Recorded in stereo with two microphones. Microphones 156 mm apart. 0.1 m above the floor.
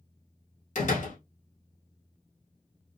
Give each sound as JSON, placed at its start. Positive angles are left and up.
{"t": 0.8, "sound": "a door slam", "side_deg": 50, "distance_m": 1.8}